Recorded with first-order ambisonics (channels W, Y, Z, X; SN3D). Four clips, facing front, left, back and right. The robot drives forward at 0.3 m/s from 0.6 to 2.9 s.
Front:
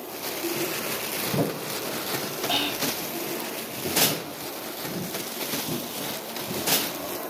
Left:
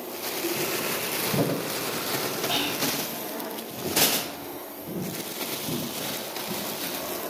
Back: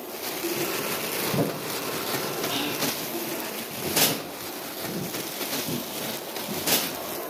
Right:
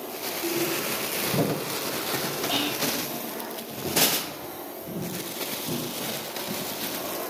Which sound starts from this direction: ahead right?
Whispering, at 2.5 s.